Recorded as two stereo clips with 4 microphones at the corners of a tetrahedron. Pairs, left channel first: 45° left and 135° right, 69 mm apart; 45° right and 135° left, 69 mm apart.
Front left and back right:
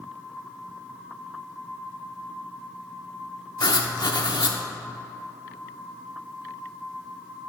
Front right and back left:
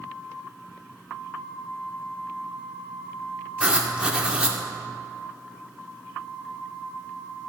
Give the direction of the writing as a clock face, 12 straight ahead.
10 o'clock.